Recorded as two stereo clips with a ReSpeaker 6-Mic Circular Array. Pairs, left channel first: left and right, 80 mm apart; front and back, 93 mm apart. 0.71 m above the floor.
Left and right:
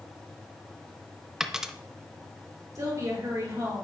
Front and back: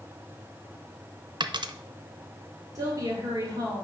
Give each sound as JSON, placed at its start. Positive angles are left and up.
{"t": 1.4, "sound": "a dropped coin", "azimuth_deg": -170, "distance_m": 0.6}
{"t": 2.8, "sound": "a woman speaking", "azimuth_deg": -135, "distance_m": 2.0}